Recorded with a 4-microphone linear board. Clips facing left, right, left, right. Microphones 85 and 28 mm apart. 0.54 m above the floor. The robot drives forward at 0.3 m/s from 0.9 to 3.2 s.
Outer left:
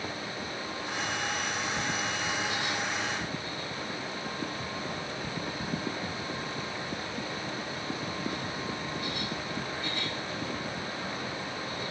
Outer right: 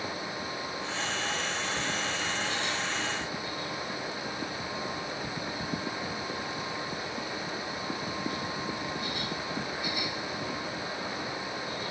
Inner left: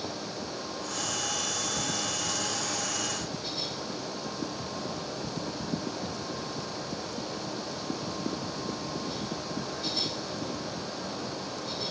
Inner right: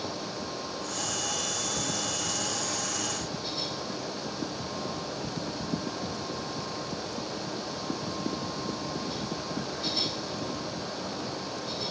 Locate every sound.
Only background noise.